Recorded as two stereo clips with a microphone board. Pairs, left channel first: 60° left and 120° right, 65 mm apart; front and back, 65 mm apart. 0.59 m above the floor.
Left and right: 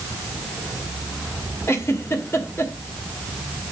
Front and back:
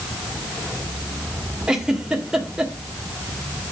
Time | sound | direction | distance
1.7 | a giggle | 100° left | 1.9 m